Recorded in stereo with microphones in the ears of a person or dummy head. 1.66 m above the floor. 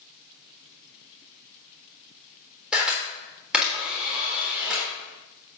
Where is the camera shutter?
5° right (ahead or behind), 3.5 m.